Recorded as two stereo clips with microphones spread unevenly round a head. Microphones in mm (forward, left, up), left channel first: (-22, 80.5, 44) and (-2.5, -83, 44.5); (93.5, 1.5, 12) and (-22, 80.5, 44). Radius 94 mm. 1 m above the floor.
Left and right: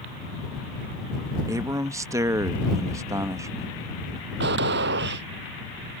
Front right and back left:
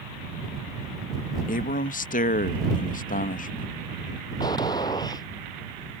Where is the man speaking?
10° right.